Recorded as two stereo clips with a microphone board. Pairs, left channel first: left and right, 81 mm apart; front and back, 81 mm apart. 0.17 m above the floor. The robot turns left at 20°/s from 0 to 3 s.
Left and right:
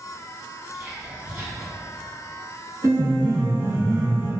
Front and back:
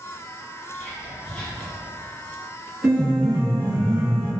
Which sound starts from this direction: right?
A piano, at 2.8 s.